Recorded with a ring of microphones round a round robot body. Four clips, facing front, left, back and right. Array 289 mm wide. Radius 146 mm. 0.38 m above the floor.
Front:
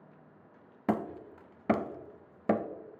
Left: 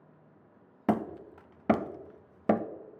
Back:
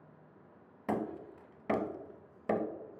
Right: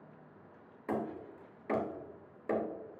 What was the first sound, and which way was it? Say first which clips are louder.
Hammering: left 7 dB, front 3 dB; 65° left.